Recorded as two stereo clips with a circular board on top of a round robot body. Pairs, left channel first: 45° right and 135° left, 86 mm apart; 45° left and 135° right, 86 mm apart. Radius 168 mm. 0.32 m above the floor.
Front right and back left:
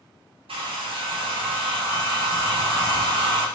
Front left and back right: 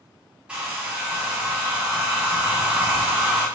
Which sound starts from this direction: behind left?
A hair dryer, at 0.5 s.